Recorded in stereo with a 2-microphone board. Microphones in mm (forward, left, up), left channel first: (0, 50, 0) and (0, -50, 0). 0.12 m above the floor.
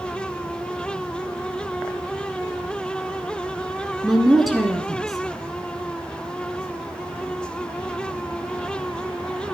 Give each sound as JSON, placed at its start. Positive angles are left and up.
{"t": 4.0, "sound": "a woman speaking", "side_deg": 0, "distance_m": 1.3}